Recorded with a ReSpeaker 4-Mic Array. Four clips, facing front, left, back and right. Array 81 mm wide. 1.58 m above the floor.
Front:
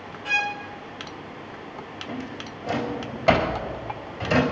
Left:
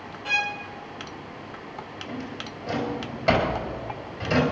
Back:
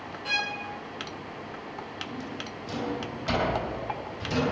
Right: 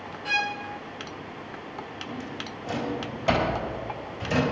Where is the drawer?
30° left, 4 m.